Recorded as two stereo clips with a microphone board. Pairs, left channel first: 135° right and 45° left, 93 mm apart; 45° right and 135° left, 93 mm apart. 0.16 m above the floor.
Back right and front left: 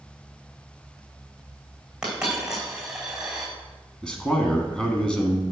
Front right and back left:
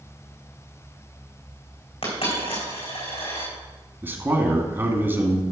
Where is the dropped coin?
40° right, 4 m.